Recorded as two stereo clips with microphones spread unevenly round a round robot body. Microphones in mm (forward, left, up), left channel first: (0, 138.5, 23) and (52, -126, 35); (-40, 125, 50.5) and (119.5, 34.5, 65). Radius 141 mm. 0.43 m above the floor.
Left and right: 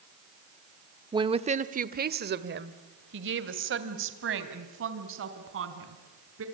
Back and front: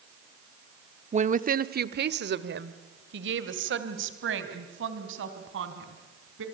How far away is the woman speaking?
About 1.0 m.